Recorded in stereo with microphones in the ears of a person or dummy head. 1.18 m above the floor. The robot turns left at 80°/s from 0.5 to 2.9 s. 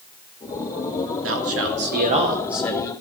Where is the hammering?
No hammering in this recording.